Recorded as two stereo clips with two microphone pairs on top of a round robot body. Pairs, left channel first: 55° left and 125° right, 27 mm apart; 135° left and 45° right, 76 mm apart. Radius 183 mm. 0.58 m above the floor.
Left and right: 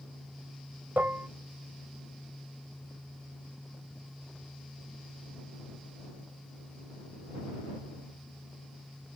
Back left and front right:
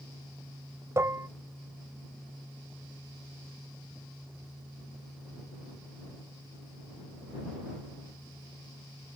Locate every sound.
1.0 s dishes clattering: 100° right